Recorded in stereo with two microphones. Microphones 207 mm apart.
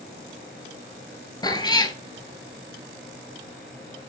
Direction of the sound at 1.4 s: 20° left (ahead or behind).